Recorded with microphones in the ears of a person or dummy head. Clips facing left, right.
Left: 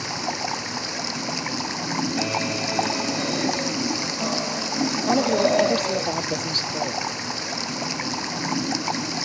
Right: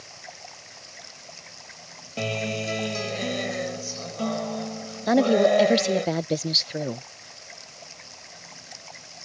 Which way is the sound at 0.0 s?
75° left (ahead or behind).